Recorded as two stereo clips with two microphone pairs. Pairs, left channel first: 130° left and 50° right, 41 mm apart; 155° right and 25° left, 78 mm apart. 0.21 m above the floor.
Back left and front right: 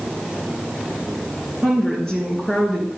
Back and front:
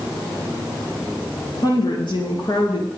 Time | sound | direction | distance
1.6 | a woman speaking | 155° right | 4 m